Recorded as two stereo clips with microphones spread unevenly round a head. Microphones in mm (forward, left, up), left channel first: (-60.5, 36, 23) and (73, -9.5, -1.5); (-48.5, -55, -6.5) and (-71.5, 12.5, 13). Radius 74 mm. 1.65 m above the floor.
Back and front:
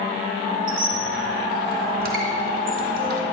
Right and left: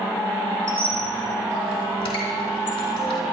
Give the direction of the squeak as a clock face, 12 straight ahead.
2 o'clock.